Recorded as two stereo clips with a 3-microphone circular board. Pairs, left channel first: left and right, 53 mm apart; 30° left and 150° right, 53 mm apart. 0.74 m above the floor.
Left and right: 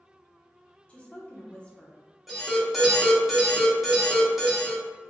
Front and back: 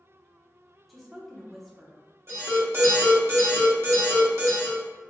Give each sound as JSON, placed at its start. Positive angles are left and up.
{"t": 0.9, "sound": "a woman speaking", "azimuth_deg": 115, "distance_m": 0.5}
{"t": 2.3, "sound": "an alarm", "azimuth_deg": -175, "distance_m": 0.8}